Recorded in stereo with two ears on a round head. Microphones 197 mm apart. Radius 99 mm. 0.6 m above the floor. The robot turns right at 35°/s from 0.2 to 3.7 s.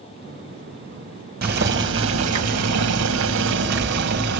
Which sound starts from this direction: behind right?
Boiling, at 1.4 s.